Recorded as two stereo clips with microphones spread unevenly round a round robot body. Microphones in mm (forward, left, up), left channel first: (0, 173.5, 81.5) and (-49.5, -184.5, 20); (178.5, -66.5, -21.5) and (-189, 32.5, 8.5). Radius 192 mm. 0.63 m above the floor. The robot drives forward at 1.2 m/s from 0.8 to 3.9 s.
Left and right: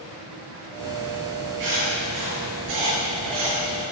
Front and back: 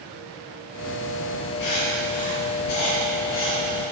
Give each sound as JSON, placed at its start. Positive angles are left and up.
{"t": 1.6, "sound": "writing", "azimuth_deg": -60, "distance_m": 8.0}